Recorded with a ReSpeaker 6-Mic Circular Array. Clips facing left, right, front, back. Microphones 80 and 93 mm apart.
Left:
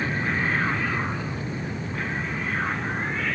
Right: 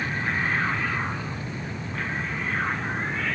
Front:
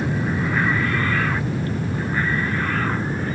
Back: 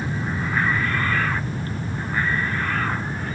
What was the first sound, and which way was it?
An aircraft, 25° left.